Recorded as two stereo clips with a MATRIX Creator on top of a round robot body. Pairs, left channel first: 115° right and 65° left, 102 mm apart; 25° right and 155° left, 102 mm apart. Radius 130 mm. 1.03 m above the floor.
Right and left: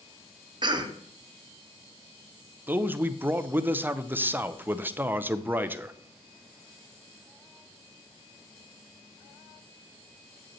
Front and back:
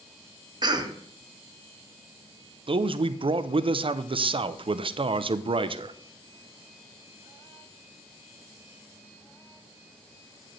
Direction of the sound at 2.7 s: 135° left.